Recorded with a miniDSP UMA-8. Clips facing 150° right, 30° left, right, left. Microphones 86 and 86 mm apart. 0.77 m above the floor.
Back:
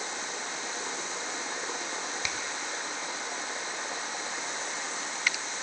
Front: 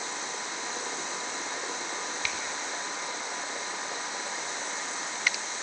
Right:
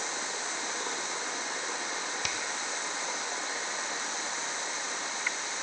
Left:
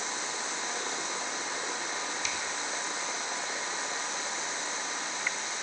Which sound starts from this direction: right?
A finger snap, at 2.2 s.